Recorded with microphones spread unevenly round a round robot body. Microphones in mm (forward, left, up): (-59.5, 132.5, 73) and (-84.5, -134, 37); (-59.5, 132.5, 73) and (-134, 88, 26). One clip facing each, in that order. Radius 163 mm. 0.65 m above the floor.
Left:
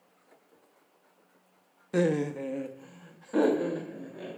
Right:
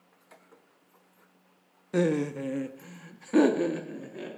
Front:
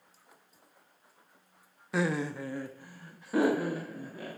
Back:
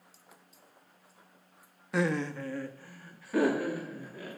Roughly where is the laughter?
Behind.